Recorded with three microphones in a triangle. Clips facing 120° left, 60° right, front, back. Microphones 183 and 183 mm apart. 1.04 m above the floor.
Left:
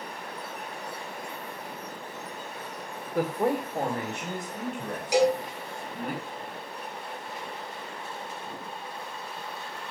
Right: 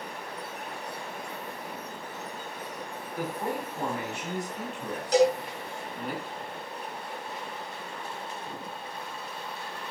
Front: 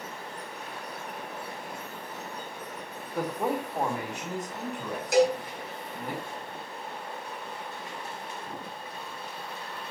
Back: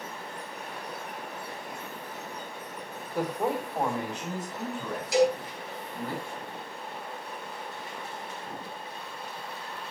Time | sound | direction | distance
3.1 | a man speaking | 90° left | 1.4 m
5.1 | a cowbell | 40° left | 3.5 m